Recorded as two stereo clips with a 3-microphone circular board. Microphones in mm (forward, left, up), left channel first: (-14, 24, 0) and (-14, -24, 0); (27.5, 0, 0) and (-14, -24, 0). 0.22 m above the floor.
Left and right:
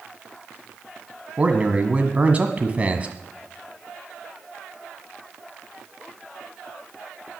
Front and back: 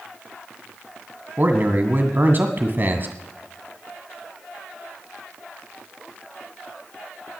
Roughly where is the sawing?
No sawing in this recording.